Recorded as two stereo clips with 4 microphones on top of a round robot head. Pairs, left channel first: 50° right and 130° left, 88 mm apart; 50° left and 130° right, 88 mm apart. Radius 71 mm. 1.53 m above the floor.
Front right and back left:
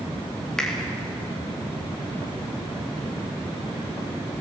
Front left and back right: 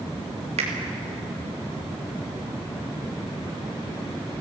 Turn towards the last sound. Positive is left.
turn(degrees=-135)